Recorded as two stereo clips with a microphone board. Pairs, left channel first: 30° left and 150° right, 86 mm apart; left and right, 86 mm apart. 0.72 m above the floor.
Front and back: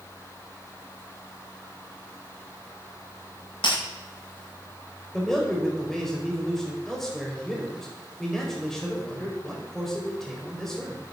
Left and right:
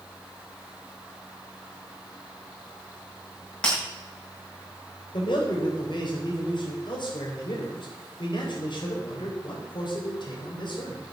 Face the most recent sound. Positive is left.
turn(degrees=115)